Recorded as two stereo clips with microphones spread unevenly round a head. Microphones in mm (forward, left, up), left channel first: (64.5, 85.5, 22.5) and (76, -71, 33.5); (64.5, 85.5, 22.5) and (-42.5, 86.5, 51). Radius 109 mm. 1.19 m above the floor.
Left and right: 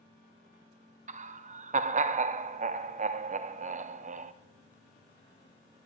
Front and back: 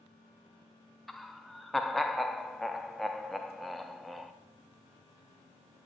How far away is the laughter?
About 0.8 m.